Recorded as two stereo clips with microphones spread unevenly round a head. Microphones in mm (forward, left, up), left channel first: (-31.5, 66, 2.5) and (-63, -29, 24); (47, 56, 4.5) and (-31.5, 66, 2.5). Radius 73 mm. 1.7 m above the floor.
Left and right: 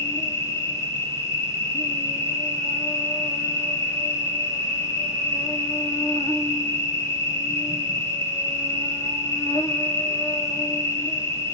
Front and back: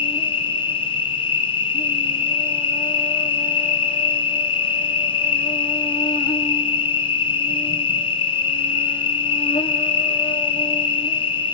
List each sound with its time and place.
0.0 s an insect: 5° right, 1.3 m